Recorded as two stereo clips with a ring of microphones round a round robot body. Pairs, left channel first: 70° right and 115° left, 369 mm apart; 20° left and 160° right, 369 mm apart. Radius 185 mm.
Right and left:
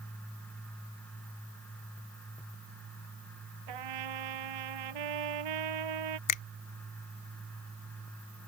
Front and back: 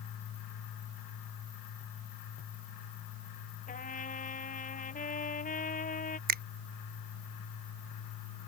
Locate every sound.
3.7 s a trumpet: 95° left
6.3 s a finger snap: 95° right